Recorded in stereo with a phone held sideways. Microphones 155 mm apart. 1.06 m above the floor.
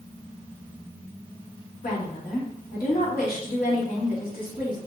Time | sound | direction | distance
1.8 | a woman speaking | 70° left (ahead or behind) | 2.5 m